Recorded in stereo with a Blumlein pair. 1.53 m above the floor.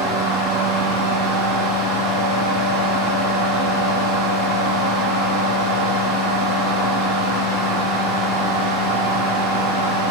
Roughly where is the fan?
Ahead.